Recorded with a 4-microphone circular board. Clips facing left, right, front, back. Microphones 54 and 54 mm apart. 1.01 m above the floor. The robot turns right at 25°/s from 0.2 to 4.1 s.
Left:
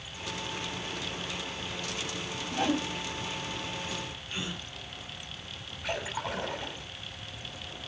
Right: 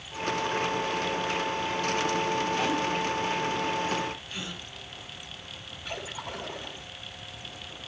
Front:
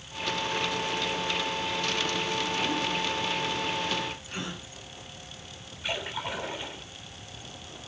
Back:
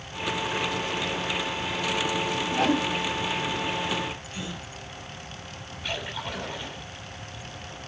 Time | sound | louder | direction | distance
2.5 | a whoosh | right 2 dB, back 9 dB | 155° left | 3.5 m
4.3 | a gasp | left 1 dB, back 1 dB | 30° left | 10 m
5.8 | a splash | left 4 dB, even | 75° left | 6.5 m